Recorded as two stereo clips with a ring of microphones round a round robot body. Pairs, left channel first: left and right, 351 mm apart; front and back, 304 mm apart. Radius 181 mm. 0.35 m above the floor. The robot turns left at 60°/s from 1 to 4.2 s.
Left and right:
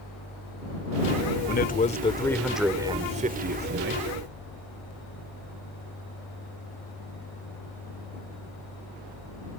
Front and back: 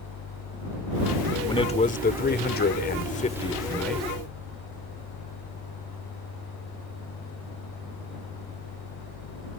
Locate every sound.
1.5 s a man speaking: 65° left; by 4.0 s 90° right